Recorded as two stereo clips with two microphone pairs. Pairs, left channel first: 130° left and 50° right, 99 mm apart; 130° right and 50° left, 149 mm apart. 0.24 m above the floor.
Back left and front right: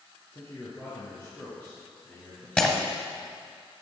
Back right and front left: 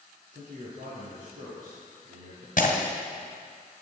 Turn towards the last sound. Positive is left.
turn(degrees=-150)